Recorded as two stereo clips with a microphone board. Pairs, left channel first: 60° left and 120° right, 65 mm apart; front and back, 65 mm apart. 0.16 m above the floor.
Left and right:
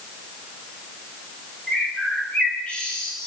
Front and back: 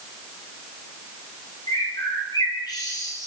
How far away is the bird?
About 5 m.